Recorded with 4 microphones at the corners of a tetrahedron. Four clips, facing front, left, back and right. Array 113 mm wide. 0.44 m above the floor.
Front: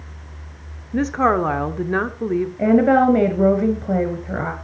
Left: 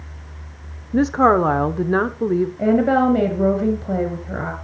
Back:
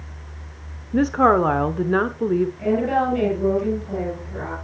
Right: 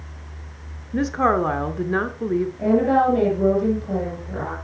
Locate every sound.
0.9 s a woman speaking: 115° left, 1.0 m
2.6 s a woman speaking: 25° left, 6 m